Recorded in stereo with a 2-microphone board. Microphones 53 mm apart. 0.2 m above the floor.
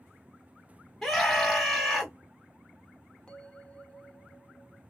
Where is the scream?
Centre (ahead or behind), 1.0 m.